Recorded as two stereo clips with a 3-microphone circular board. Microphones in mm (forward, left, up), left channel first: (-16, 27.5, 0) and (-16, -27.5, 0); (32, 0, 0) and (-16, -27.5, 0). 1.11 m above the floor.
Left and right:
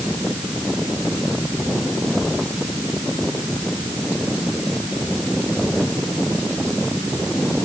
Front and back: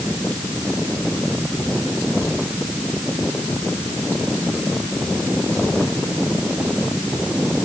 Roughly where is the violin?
I don't hear a violin.